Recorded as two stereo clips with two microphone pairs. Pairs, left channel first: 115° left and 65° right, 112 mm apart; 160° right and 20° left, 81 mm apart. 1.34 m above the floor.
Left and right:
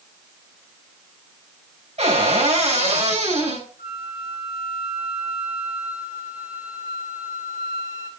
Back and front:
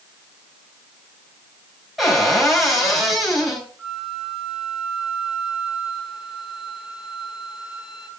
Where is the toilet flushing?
No toilet flushing in this recording.